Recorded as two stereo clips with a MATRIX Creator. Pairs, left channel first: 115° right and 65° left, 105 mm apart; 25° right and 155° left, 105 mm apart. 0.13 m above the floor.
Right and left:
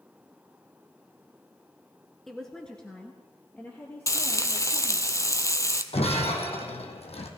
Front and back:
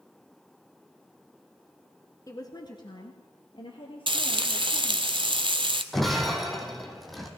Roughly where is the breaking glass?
Right.